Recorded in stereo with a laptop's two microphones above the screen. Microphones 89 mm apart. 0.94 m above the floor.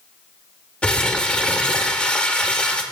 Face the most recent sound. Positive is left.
turn(degrees=15)  # may be behind; listen again after turning